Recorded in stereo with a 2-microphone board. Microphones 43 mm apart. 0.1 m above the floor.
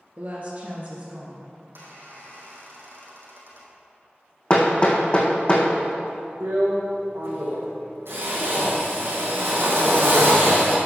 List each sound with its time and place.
0.2 s a woman speaking: 45° right (ahead or behind), 1.7 m; by 1.5 s 35° right (ahead or behind), 2 m
1.6 s a squeak: 65° right (ahead or behind), 2.5 m
4.5 s hammering: 30° left (ahead or behind), 1.6 m
6.4 s a drill: 70° right (ahead or behind), 3 m